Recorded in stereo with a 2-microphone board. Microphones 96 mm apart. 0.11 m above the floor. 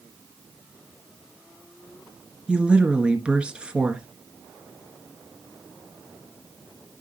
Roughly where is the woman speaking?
Centre.